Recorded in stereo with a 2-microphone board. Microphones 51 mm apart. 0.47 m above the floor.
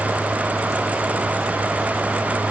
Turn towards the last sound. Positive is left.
No sound to turn to.